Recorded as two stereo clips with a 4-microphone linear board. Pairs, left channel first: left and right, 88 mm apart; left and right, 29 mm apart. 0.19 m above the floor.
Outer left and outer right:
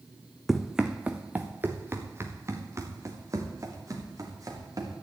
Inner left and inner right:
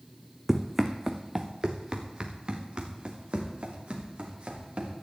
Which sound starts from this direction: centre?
Running footsteps, at 0.5 s.